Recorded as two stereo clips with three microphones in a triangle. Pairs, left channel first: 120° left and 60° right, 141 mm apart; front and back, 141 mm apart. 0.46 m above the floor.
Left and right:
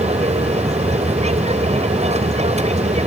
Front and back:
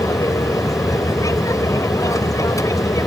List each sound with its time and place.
0.0 s an aircraft: 60° right